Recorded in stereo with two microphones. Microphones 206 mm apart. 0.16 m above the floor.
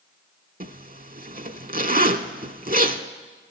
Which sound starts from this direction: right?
A zipper, at 0.6 s.